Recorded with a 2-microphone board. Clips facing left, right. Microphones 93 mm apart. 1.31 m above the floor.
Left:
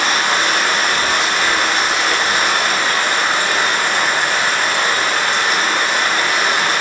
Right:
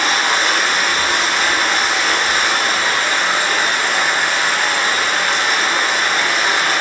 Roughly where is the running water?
Left.